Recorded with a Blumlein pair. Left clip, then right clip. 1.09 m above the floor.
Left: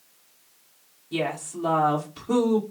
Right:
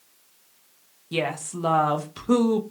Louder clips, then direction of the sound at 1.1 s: Right 1 dB; 70° right.